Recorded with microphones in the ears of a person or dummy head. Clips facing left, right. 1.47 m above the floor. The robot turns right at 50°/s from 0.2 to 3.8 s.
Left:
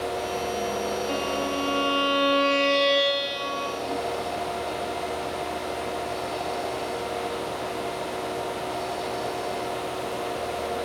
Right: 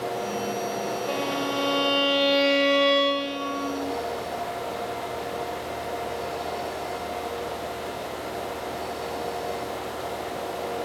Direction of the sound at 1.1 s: 85° right.